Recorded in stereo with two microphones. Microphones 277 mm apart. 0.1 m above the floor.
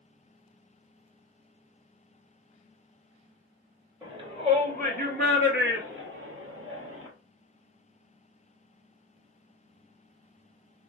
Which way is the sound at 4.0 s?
15° right (ahead or behind).